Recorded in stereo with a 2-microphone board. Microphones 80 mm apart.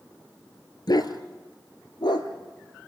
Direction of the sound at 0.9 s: 60° left (ahead or behind).